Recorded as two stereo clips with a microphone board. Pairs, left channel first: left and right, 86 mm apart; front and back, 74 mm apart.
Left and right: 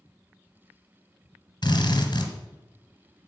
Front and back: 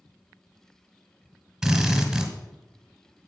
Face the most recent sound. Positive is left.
turn(degrees=95)